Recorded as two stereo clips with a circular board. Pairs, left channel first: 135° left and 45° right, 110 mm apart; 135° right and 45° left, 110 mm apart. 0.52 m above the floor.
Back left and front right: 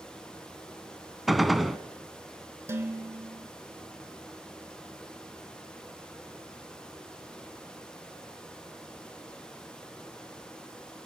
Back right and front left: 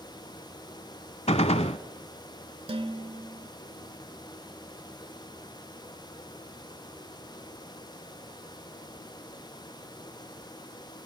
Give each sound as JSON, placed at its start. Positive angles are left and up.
{"t": 1.3, "sound": "a gunshot", "azimuth_deg": -135, "distance_m": 0.8}
{"t": 2.7, "sound": "dishes clattering", "azimuth_deg": 20, "distance_m": 1.4}